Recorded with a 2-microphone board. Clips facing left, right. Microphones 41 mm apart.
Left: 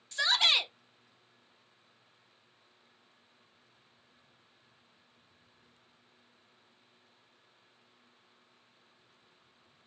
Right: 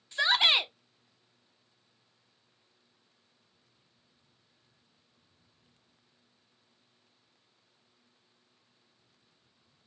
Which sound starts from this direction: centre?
A shout, at 0.1 s.